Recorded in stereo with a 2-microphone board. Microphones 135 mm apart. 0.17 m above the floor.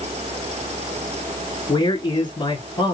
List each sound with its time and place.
1.7 s a man speaking: 40° left (ahead or behind), 1.8 m